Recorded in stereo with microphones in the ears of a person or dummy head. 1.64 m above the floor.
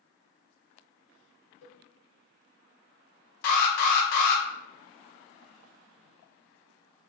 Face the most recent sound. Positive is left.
turn(degrees=50)  # may be behind; listen again after turning